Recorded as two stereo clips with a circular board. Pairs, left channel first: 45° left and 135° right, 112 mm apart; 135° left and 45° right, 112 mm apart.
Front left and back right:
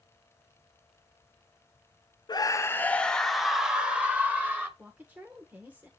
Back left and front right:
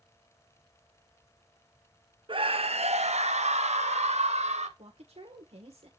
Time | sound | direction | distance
2.3 | a scream | 5° right | 0.5 m
4.8 | a woman speaking | 60° right | 1.2 m